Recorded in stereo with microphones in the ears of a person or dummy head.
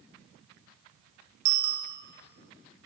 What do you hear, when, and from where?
1.4 s a bicycle bell: 70° right (ahead or behind), 4.5 m